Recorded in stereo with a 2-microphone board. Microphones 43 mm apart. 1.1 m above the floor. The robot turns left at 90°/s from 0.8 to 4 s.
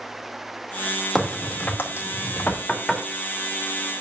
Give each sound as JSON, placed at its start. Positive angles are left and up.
{"t": 1.1, "sound": "a crack", "side_deg": 0, "distance_m": 2.5}
{"t": 2.5, "sound": "knocking", "side_deg": 45, "distance_m": 1.6}